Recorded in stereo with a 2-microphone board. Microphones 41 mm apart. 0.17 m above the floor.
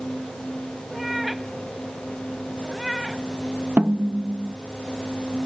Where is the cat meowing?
5° right (ahead or behind).